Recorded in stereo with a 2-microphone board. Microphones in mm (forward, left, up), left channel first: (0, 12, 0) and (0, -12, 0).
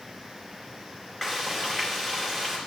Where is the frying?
15° left (ahead or behind), 2.5 m.